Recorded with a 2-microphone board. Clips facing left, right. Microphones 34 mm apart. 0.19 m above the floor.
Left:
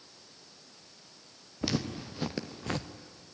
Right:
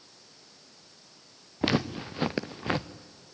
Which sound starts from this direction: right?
Footsteps, at 1.6 s.